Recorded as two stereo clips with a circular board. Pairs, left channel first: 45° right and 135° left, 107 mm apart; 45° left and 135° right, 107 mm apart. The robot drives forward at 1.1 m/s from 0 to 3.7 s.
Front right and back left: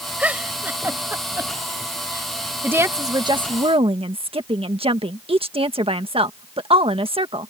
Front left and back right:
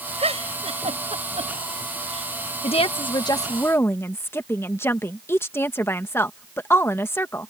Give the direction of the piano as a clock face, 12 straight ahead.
No piano in this recording.